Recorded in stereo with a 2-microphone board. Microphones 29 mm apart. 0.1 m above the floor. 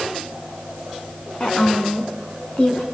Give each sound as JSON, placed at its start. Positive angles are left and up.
{"t": 1.4, "sound": "a woman speaking", "side_deg": 40, "distance_m": 5.5}